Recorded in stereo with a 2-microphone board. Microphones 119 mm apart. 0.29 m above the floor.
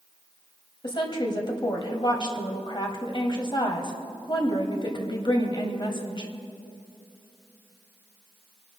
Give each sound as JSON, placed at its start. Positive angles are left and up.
{"t": 0.8, "sound": "a woman speaking", "side_deg": 40, "distance_m": 1.9}